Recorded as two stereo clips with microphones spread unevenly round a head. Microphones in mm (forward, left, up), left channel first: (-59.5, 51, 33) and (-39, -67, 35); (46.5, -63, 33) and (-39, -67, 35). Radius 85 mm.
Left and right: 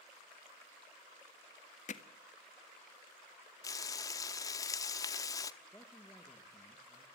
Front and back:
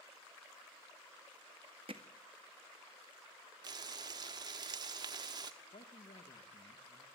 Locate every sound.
1.9 s hammering: 125° left, 1.6 m
3.6 s frying: 150° left, 1.1 m
5.6 s a man speaking: 25° left, 2 m